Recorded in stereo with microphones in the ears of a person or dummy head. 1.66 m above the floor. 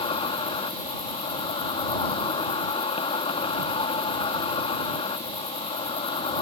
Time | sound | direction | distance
0.0 | an insect | 30° left (ahead or behind) | ?